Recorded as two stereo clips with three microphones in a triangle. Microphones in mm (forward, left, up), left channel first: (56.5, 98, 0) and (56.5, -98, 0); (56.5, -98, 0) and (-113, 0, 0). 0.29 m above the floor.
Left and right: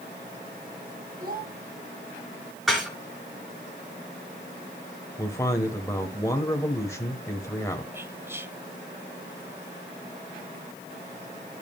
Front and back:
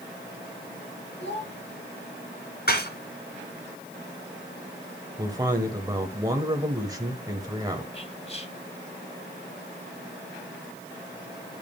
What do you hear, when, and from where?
1.2 s a child speaking: 50° right, 6 m
2.7 s dishes clattering: straight ahead, 3 m
5.2 s a man speaking: 130° left, 1.1 m
7.9 s whispering: 25° right, 1.0 m